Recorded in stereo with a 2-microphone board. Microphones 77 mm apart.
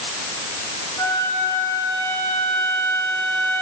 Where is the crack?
No crack in this recording.